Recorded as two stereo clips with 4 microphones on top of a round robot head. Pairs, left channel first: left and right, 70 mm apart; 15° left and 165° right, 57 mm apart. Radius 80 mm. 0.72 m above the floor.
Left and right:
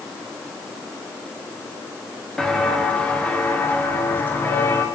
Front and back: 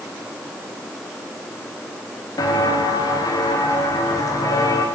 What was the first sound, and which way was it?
Footsteps, 5° left.